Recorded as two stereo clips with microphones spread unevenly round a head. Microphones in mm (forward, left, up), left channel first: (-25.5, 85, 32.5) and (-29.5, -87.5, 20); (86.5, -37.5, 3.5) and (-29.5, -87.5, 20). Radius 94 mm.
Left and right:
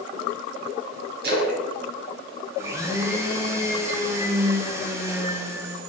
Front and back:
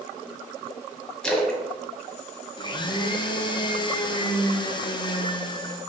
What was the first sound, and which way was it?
A splash, 60° right.